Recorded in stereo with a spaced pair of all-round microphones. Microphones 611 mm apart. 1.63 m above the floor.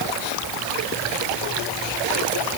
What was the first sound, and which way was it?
Only background noise.